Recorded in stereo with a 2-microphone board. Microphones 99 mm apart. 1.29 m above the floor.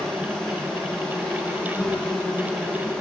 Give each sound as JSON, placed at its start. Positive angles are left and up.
{"t": 0.0, "sound": "an insect", "side_deg": 10, "distance_m": 7.5}